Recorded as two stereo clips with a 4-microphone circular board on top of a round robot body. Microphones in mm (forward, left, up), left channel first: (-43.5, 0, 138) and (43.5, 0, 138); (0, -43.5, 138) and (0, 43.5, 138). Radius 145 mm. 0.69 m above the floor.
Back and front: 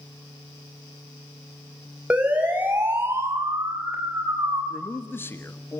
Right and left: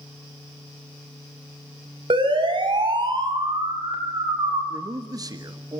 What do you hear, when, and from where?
2.1 s a siren: 75° left, 6 m; by 4.6 s 55° left, 7 m
4.7 s a man speaking: 120° left, 1.7 m